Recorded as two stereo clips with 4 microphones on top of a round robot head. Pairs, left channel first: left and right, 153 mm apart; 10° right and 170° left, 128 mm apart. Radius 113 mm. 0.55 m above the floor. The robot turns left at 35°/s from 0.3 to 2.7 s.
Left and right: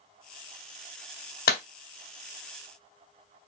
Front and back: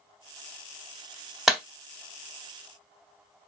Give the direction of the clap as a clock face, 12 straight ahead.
9 o'clock.